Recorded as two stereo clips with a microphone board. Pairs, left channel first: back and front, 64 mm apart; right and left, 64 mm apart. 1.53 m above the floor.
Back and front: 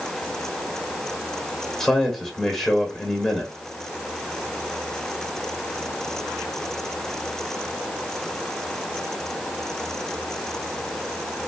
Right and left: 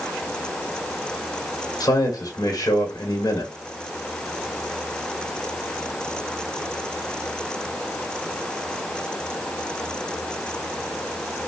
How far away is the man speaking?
About 1.4 m.